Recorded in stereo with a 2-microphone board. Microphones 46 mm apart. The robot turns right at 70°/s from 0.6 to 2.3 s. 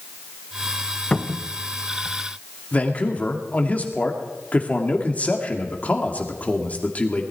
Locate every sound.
1.1 s a cupboard door: 25° left (ahead or behind), 0.6 m; by 1.5 s 30° left (ahead or behind), 0.6 m
2.7 s a man speaking: 35° left (ahead or behind), 2.0 m